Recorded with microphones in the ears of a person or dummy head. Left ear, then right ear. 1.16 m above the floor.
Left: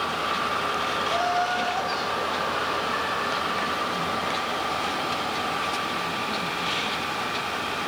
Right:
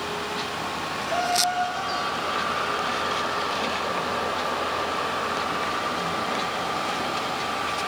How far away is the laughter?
About 0.7 m.